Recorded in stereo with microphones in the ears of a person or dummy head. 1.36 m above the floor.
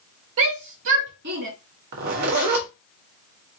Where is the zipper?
60° right (ahead or behind), 1.3 m.